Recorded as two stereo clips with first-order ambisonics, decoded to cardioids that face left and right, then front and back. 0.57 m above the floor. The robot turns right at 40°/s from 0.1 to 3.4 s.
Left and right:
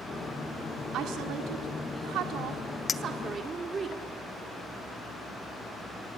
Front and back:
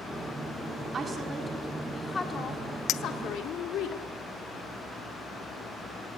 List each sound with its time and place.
0.9 s a woman speaking: 120° right, 1.7 m; by 3.9 s 25° right, 1.7 m
2.9 s a clink: 25° left, 0.5 m; by 4.0 s 50° left, 0.5 m